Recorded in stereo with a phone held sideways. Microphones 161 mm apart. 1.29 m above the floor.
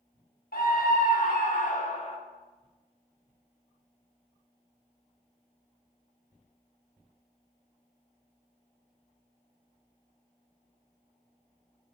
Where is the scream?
70° left (ahead or behind), 1.3 m; by 2.2 s 40° left (ahead or behind), 1.0 m.